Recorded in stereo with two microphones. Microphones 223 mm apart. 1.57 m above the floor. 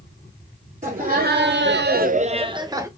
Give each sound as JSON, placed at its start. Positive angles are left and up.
{"t": 0.8, "sound": "laughter", "side_deg": -35, "distance_m": 0.9}